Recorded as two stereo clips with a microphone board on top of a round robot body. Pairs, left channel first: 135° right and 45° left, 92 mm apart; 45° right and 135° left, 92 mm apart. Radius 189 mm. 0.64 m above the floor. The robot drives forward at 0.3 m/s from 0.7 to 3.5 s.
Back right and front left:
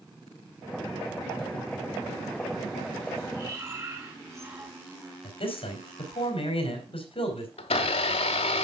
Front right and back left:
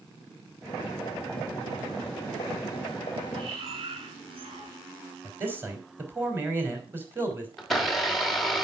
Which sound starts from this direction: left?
Breathing, at 3.3 s.